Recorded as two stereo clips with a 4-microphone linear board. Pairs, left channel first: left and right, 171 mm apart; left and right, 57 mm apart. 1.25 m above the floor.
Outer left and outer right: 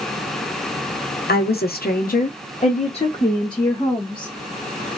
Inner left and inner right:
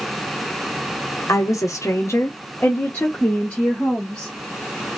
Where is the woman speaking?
65° left (ahead or behind), 0.8 m; by 4.3 s 20° left (ahead or behind), 1.5 m.